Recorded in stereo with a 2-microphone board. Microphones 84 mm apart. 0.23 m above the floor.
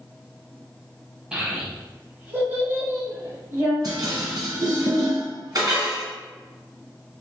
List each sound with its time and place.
1.3 s a child speaking: 10° right (ahead or behind), 1.1 m; by 3.7 s 25° right (ahead or behind), 1.2 m
3.8 s dishes clattering: 55° right (ahead or behind), 1.3 m